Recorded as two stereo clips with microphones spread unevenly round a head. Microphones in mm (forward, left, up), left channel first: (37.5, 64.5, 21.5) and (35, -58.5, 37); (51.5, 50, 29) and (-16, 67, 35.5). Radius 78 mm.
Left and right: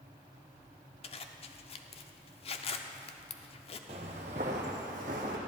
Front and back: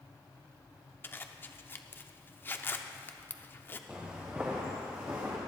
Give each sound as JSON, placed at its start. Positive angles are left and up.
{"t": 1.0, "sound": "a zipper", "azimuth_deg": 45, "distance_m": 0.8}
{"t": 3.9, "sound": "footsteps", "azimuth_deg": -115, "distance_m": 1.3}